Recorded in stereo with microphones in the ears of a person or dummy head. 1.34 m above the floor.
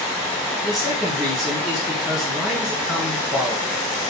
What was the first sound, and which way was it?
A man speaking, centre (ahead or behind).